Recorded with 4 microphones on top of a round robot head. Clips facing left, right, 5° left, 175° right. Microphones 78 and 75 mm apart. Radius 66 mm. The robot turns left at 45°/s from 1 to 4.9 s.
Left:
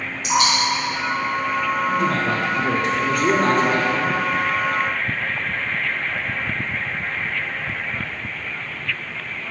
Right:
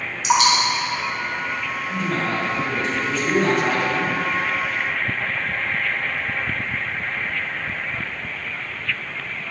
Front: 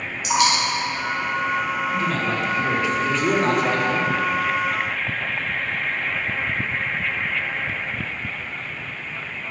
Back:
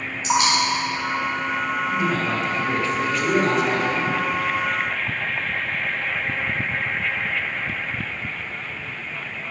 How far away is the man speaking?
About 1.7 m.